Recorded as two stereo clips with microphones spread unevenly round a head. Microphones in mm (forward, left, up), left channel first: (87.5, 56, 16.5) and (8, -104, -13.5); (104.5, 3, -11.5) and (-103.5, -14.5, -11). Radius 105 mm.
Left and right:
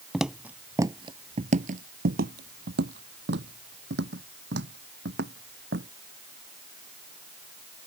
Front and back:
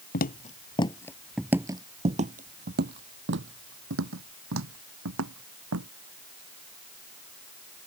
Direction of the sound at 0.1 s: 20° right.